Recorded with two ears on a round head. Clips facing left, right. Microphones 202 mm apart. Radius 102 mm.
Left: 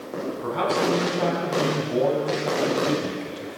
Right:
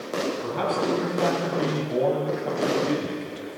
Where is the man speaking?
Centre (ahead or behind), 6.5 m.